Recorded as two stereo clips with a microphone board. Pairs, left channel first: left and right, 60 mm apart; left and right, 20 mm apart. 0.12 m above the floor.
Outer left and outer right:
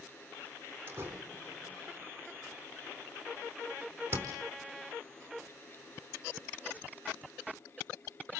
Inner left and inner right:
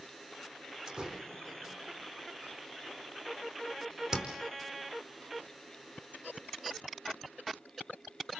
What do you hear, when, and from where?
0.9 s a door slam: 35° right (ahead or behind), 4.5 m